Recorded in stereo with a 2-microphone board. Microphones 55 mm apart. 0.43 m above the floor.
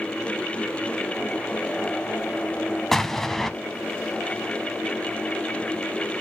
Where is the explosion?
10° left (ahead or behind), 0.5 m.